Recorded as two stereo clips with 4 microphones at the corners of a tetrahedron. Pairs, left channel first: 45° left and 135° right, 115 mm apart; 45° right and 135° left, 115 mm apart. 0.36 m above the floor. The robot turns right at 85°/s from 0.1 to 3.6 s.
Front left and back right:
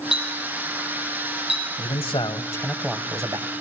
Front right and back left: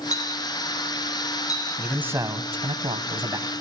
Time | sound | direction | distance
0.1 | a clink | 135° left | 9 m
1.8 | a man speaking | 45° left | 1.9 m